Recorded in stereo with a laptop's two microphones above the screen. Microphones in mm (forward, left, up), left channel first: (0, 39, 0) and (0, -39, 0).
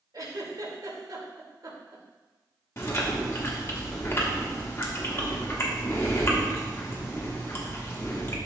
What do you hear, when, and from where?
0.1 s a giggle: 60° right (ahead or behind), 2.5 m
2.8 s chewing: 35° left (ahead or behind), 1.3 m